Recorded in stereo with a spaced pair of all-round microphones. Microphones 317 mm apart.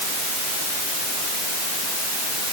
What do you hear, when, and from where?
Only background noise.